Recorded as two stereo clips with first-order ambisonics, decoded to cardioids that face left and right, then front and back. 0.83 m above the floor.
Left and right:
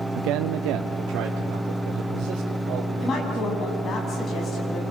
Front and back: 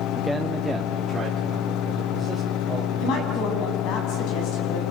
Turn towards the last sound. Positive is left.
turn(degrees=30)